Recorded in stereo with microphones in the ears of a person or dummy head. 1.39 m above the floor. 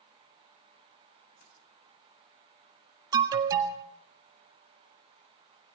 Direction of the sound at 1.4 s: 60° left (ahead or behind).